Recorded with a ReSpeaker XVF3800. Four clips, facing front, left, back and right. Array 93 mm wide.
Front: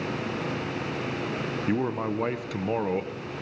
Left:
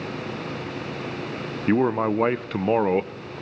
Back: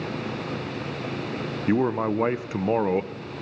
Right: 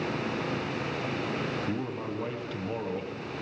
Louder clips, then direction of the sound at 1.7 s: Left 12 dB, back 6 dB; 115° left.